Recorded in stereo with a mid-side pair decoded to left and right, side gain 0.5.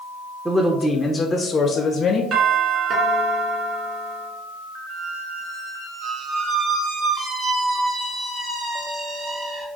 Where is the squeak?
60° right, 1.7 m.